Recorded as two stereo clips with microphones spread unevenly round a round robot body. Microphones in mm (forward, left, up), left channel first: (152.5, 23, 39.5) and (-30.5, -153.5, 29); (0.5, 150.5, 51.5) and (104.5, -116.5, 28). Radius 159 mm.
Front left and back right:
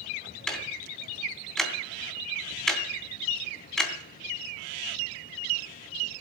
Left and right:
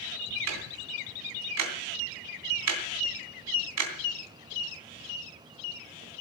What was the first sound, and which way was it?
Ticking, 45° right.